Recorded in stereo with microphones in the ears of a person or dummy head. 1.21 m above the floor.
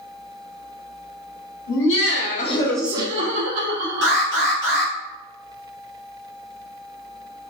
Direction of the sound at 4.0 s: 60° right (ahead or behind).